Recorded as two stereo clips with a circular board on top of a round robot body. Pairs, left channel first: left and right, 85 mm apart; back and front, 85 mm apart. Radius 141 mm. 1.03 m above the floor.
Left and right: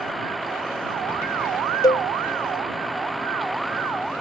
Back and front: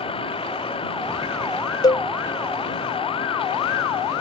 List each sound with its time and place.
0.0 s a vehicle: straight behind
1.8 s a cowbell: 135° left